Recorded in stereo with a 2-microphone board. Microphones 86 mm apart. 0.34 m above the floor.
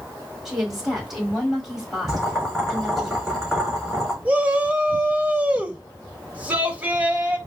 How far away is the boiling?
About 3 m.